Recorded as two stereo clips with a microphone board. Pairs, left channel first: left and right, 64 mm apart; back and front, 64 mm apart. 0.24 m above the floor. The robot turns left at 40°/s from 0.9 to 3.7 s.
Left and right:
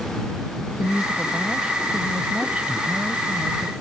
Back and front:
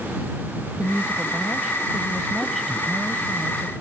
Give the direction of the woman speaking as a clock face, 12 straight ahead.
1 o'clock.